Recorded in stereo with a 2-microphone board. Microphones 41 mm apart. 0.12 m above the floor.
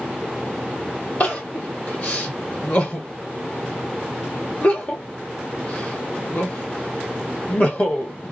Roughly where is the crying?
Left.